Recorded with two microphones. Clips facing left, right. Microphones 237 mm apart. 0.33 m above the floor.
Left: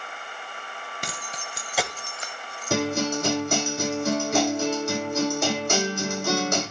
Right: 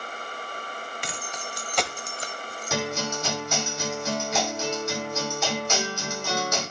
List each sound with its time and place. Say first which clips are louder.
1.0 s keys jangling: right 1 dB; 45° left (ahead or behind), 1.5 m; by 3.2 s 70° right (ahead or behind), 1.8 m
2.7 s a guitar: left 5 dB; 50° left (ahead or behind), 7 m